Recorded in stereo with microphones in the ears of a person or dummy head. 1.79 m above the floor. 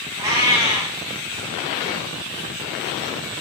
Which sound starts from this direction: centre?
A cat meowing, at 0.2 s.